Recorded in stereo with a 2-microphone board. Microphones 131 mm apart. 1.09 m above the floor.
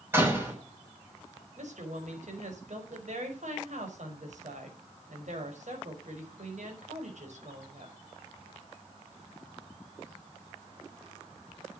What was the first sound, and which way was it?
A door slam, 20° right (ahead or behind).